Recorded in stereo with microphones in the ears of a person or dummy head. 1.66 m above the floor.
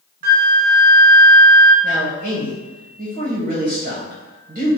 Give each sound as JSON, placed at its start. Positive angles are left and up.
{"t": 0.2, "sound": "a flute", "side_deg": -55, "distance_m": 0.5}
{"t": 1.8, "sound": "a man speaking", "side_deg": -45, "distance_m": 1.0}